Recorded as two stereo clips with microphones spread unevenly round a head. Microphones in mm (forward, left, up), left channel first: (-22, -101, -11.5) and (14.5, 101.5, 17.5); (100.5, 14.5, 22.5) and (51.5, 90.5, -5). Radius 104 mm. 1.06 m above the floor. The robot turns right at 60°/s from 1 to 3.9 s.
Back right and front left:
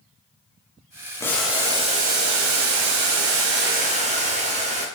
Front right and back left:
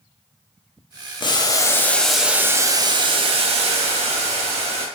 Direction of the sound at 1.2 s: 25° right.